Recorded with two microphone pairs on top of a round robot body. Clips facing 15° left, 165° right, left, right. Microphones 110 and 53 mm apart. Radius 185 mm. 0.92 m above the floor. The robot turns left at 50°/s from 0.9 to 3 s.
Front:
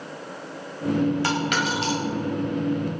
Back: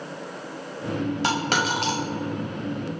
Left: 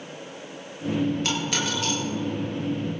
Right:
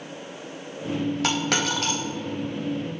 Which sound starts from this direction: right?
A dropped coin, at 1.2 s.